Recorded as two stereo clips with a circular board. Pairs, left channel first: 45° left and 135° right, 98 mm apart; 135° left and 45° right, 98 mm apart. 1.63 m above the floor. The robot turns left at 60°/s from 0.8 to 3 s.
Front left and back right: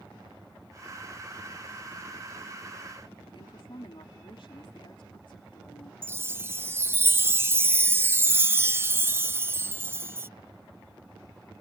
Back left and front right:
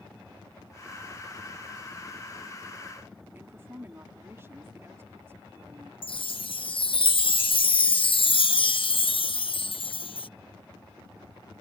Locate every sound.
3.3 s a woman speaking: 20° left
6.0 s a chime: 160° left